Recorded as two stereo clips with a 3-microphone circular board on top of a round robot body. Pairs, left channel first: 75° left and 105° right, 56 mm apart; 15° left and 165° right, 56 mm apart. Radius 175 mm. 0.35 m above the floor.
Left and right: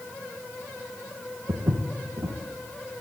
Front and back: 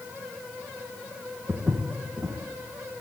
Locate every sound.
1.5 s footsteps: 80° right, 1.9 m